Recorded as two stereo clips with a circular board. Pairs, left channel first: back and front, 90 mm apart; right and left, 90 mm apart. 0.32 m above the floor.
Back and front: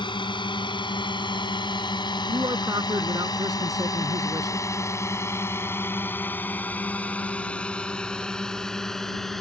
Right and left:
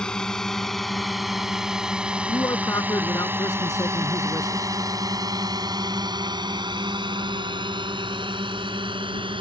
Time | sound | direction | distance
0.0 | a drone | 170° right | ?
2.3 | a man speaking | 40° right | ?